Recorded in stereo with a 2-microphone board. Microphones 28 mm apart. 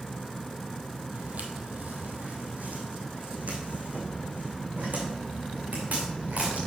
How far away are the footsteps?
About 1.4 m.